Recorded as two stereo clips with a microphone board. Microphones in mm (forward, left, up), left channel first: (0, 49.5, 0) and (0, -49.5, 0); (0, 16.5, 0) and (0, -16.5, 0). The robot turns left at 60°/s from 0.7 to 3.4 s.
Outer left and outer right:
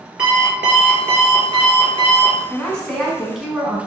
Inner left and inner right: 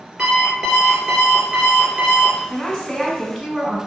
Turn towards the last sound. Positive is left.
turn(degrees=-5)  # may be behind; listen again after turning